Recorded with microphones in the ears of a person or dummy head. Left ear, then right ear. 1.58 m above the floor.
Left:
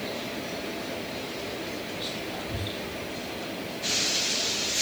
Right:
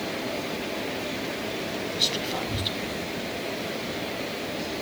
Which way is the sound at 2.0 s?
45° right (ahead or behind).